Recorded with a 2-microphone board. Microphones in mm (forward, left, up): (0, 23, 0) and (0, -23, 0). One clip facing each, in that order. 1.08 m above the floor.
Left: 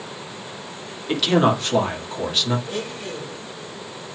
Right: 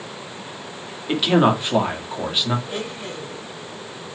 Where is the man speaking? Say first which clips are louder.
Right 1 dB; 15° right (ahead or behind), 1.8 m.